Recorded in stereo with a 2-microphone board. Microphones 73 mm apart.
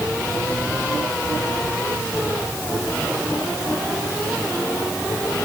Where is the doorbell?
No doorbell in this recording.